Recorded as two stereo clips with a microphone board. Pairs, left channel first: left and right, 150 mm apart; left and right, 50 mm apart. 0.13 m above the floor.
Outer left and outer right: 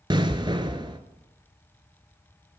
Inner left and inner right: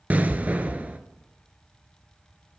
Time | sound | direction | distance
0.1 | an explosion | 30° right (ahead or behind) | 1.0 m